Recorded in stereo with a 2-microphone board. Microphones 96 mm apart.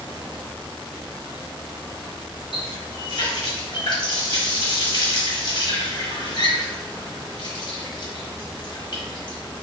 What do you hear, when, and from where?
2.5 s a running tap: 60° left (ahead or behind), 1.1 m